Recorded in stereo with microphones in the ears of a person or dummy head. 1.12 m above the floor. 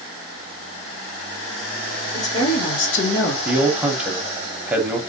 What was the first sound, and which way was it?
A woman speaking, 55° left (ahead or behind).